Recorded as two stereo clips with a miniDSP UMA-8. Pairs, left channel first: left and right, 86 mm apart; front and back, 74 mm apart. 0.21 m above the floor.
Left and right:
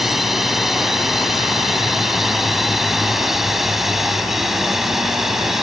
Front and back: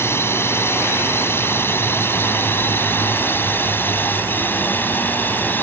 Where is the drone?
5° right.